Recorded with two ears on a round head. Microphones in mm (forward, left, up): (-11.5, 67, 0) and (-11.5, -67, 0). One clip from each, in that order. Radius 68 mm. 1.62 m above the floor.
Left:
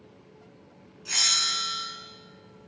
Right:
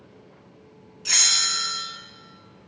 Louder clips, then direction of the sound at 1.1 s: Right 3 dB; 55° right (ahead or behind).